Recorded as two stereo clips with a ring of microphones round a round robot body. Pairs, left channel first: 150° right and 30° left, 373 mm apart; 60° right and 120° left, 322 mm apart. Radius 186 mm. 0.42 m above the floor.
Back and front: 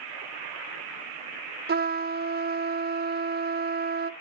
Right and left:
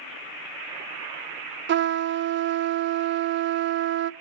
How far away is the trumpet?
About 0.7 m.